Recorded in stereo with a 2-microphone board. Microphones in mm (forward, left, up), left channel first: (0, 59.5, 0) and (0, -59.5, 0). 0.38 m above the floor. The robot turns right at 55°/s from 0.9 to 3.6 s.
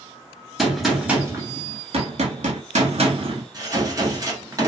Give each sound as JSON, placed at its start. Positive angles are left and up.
{"t": 0.6, "sound": "a gunshot", "azimuth_deg": 180, "distance_m": 1.1}